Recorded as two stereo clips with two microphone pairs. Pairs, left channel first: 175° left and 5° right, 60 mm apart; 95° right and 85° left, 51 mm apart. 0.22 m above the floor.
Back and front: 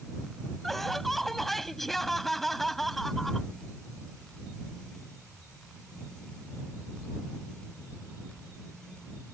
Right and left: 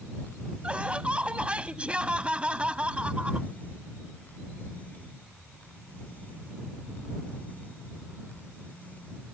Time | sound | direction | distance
0.6 | laughter | 90° left | ?